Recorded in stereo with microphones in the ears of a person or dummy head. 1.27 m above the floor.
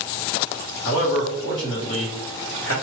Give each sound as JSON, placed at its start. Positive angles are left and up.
{"t": 0.8, "sound": "a man speaking", "side_deg": 70, "distance_m": 1.4}